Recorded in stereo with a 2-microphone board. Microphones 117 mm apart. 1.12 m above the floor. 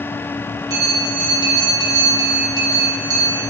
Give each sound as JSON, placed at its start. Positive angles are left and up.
{"t": 0.7, "sound": "a bell", "side_deg": -30, "distance_m": 1.2}